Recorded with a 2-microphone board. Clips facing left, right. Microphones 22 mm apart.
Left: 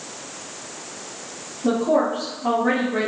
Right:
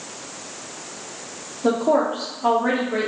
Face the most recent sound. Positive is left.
turn(degrees=-75)  # may be behind; listen again after turning